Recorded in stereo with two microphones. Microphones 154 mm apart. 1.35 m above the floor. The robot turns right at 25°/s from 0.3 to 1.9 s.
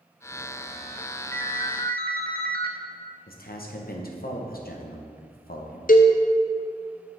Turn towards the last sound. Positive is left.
turn(degrees=60)  # may be behind; listen again after turning